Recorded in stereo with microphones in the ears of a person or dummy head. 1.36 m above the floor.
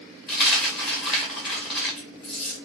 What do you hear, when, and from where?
0.3 s a dropped coin: 5° left (ahead or behind), 0.7 m